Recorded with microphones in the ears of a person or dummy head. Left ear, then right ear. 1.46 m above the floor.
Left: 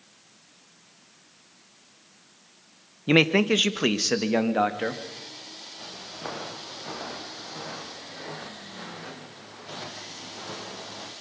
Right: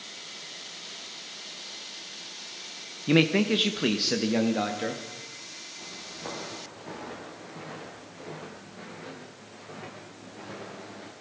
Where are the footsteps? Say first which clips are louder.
Left 3 dB; 75° left (ahead or behind), 5.5 m; by 11.1 s 50° left (ahead or behind), 3.5 m.